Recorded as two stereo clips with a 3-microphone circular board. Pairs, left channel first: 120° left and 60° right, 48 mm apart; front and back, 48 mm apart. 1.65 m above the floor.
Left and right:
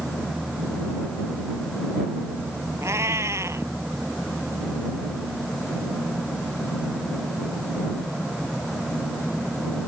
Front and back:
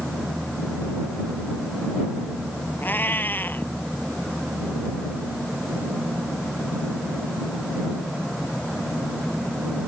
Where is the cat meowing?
45° right.